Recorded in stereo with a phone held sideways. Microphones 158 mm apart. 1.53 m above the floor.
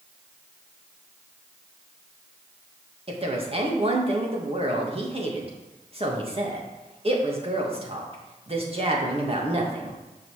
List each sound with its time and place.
3.1 s a woman speaking: 40° right (ahead or behind), 1.9 m